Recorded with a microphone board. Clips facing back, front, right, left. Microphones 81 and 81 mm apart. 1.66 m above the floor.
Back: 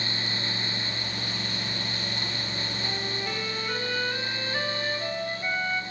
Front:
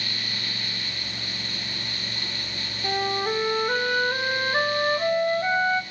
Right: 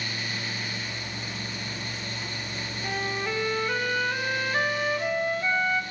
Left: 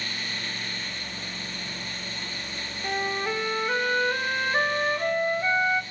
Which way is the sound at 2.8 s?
20° left.